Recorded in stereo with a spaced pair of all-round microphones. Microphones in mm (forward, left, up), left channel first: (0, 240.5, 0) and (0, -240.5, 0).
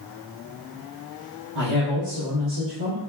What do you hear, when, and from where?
1.6 s a man speaking: 65° right (ahead or behind), 1.3 m